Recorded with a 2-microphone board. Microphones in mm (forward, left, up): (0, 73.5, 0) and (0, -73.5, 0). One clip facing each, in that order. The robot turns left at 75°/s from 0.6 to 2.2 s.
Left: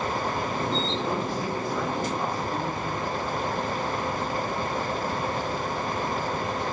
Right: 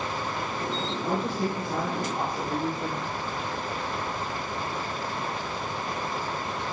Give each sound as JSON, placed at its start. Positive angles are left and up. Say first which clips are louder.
{"t": 1.0, "sound": "a woman speaking", "louder": "right 1 dB", "azimuth_deg": -60, "distance_m": 5.0}